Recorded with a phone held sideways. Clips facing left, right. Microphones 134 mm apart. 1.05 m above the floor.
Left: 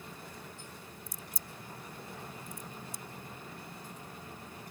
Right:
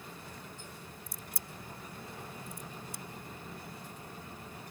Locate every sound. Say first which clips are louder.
1.1 s a crack: even; 65° right (ahead or behind)